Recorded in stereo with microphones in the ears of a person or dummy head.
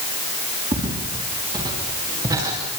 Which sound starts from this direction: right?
Footsteps, at 0.7 s.